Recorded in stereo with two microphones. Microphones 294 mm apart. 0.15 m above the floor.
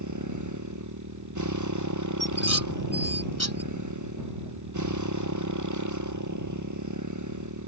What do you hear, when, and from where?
0.0 s a motorcycle: 75° right (ahead or behind)
2.2 s dishes clattering: 60° left (ahead or behind)